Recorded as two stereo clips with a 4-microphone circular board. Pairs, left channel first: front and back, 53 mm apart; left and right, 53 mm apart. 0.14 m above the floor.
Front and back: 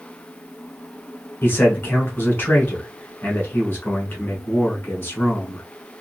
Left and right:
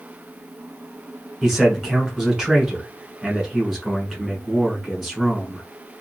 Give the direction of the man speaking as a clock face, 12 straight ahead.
12 o'clock.